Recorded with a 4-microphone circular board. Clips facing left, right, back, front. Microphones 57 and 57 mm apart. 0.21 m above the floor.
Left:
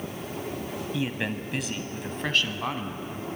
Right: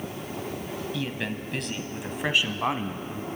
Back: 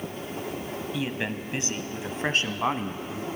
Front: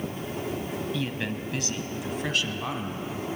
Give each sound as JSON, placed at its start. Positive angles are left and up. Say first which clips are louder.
{"t": 0.9, "sound": "a man speaking", "louder": "left 4 dB, back 1 dB", "azimuth_deg": 125, "distance_m": 1.1}